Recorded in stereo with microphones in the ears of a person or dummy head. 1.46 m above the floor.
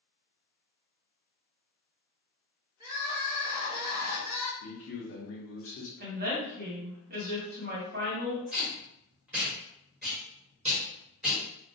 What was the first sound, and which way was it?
Crying, 30° right (ahead or behind).